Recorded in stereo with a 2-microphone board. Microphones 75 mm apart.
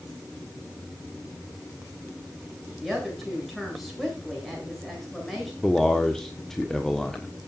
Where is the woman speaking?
Centre (ahead or behind), 8.5 m.